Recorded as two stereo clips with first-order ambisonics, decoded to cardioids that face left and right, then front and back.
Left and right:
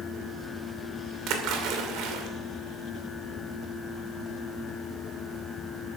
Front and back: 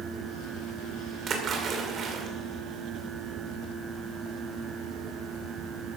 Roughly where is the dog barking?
I don't hear a dog barking.